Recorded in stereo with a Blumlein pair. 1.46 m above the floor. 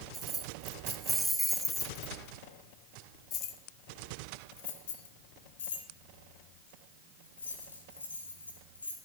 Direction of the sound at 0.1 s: 20° right.